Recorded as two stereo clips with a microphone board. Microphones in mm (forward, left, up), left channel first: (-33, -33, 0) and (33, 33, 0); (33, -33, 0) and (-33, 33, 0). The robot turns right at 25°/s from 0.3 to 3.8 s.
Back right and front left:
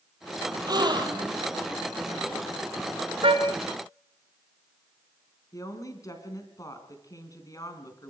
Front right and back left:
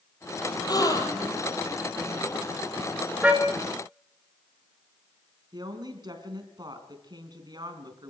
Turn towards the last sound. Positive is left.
turn(degrees=175)